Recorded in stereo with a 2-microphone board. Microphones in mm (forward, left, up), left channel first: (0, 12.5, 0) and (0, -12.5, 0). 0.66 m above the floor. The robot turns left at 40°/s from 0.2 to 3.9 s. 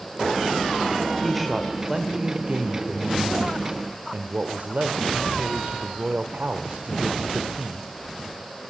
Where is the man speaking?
5° left, 1.8 m; by 7.9 s 100° right, 1.8 m.